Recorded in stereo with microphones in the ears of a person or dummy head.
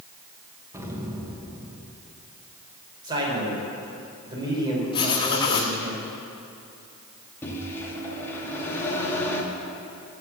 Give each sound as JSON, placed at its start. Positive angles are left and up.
{"t": 0.7, "sound": "an explosion", "side_deg": -15, "distance_m": 1.1}
{"t": 3.0, "sound": "a man speaking", "side_deg": -25, "distance_m": 4.5}
{"t": 4.9, "sound": "writing", "side_deg": 25, "distance_m": 1.2}
{"t": 7.4, "sound": "a microwave", "side_deg": 10, "distance_m": 1.9}